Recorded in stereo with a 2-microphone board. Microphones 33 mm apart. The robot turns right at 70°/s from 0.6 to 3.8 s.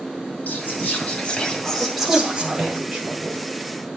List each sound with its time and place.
0.5 s whispering: 90° left, 2 m; by 2.8 s 115° right, 2 m
1.8 s a woman speaking: 50° left (ahead or behind), 5.5 m; by 3.5 s 60° right (ahead or behind), 5.5 m